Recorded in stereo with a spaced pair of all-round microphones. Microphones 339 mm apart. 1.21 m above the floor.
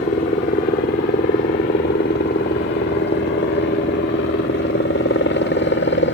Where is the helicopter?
25° left (ahead or behind); by 6.1 s 35° left (ahead or behind).